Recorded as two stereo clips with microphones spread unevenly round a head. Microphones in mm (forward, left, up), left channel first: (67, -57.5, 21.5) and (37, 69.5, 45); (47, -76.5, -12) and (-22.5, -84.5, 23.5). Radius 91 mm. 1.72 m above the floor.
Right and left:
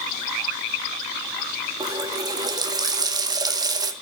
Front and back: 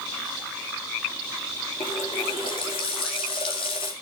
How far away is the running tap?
About 1.9 m.